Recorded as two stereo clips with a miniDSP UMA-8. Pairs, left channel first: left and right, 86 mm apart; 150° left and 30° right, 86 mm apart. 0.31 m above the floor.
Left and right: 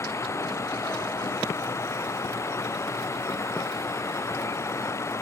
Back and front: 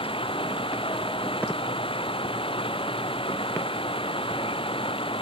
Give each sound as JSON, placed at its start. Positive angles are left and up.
{"t": 0.0, "sound": "running water", "azimuth_deg": 150}